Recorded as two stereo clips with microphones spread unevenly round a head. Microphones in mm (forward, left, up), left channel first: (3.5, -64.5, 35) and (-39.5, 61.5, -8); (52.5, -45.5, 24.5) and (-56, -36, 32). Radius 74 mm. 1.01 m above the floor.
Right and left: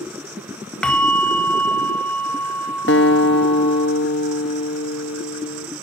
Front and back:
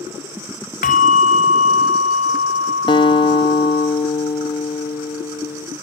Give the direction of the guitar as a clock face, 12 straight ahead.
2 o'clock.